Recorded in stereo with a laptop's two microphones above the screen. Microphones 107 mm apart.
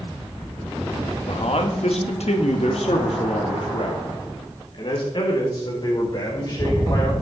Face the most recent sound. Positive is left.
turn(degrees=40)  # may be behind; listen again after turning